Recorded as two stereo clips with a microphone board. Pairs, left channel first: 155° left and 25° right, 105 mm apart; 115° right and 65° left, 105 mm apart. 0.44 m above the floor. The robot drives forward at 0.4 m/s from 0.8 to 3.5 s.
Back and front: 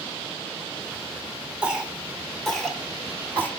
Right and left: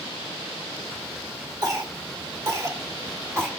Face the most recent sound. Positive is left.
turn(degrees=105)